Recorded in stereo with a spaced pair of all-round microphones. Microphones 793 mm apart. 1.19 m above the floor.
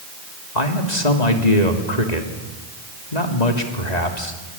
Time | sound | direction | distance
0.6 | a man speaking | 50° left (ahead or behind) | 3 m